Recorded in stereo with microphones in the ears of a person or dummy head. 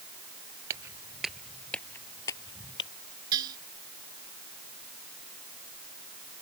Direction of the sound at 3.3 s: 20° right (ahead or behind).